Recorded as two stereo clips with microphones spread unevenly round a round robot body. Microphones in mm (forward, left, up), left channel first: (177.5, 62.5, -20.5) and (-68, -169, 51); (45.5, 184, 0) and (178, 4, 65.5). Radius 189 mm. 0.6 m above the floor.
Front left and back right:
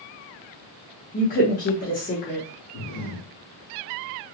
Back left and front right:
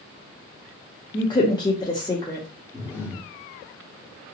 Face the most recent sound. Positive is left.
turn(degrees=45)